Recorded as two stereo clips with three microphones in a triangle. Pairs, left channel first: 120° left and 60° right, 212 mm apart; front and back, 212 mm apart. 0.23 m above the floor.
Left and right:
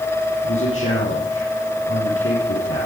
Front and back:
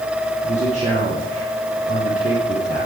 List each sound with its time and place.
0.4 s a man speaking: 125° left, 6.5 m